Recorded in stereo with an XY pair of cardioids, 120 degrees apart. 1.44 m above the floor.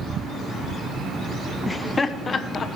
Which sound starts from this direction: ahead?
Laughter, at 1.7 s.